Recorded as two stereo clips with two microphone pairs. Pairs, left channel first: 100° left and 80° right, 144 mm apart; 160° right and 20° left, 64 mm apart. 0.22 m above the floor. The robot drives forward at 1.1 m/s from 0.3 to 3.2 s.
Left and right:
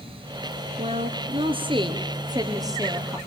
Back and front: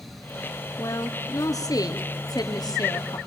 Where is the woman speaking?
120° right, 3 m; by 3.2 s 150° right, 4.5 m.